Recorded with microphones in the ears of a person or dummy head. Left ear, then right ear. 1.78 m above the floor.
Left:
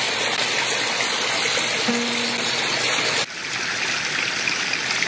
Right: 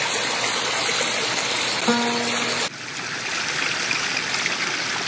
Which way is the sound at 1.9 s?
65° right (ahead or behind).